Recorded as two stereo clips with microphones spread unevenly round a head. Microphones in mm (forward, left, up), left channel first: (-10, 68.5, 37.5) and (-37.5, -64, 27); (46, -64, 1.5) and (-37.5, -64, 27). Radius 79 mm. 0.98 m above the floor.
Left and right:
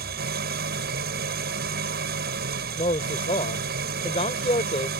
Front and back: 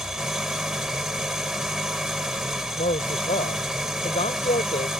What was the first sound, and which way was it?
An engine running, 100° right.